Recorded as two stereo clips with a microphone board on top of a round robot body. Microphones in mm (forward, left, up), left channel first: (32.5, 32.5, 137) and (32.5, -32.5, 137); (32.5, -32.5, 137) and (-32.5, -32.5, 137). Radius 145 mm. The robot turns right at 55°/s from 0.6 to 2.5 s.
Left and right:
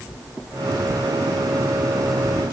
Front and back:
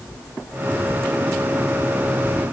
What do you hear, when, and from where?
Only background noise.